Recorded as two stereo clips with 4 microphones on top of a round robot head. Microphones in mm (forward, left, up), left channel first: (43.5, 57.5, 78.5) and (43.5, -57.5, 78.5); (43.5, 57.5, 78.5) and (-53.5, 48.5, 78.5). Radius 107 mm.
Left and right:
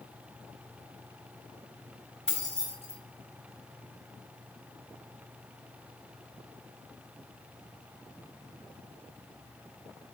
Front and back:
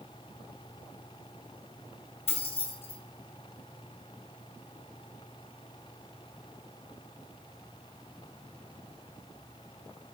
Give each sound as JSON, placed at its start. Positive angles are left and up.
{"t": 2.3, "sound": "keys jangling", "azimuth_deg": 5, "distance_m": 3.0}